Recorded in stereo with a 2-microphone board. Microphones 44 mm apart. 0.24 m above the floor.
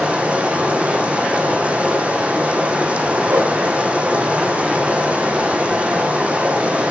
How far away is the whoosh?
About 8 m.